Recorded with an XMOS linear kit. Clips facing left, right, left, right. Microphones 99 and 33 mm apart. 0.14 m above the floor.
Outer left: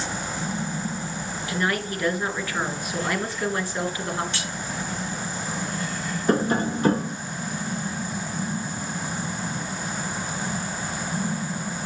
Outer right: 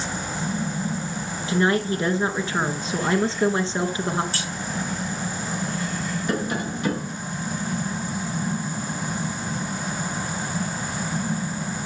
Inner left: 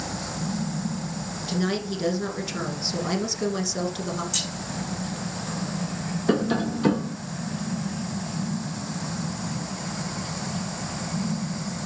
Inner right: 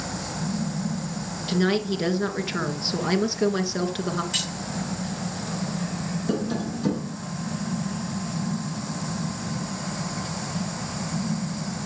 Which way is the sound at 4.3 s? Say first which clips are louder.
Outer right 1 dB, inner right 2 dB; 35° right (ahead or behind).